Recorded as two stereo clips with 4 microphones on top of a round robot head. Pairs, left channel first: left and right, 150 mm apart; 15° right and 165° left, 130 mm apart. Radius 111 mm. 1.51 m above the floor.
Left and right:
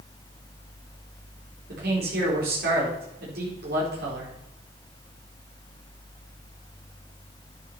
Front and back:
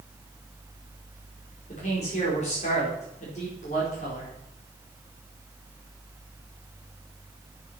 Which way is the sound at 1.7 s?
60° right.